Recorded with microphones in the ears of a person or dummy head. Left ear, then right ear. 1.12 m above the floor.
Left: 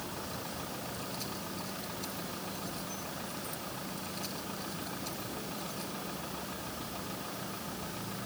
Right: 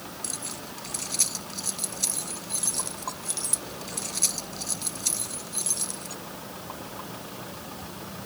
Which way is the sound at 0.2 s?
80° right.